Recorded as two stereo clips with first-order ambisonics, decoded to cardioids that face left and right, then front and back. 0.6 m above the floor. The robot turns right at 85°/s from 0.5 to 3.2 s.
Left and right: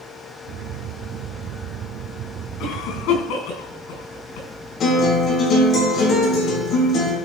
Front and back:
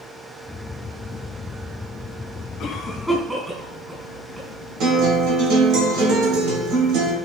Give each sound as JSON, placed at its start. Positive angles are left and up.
{"t": 2.6, "sound": "a cough", "azimuth_deg": 55, "distance_m": 4.5}
{"t": 4.8, "sound": "a guitar", "azimuth_deg": 150, "distance_m": 3.5}